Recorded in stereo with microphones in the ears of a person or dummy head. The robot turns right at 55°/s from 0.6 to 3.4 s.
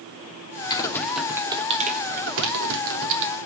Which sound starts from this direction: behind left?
Typing on a keyboard, at 0.7 s.